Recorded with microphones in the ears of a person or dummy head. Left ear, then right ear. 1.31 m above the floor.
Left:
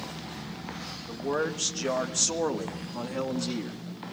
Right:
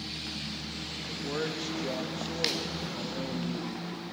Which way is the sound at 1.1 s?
10° left (ahead or behind).